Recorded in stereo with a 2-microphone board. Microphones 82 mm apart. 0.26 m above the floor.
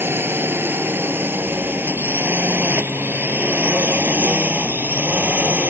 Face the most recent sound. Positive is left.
turn(degrees=-25)  # may be behind; listen again after turning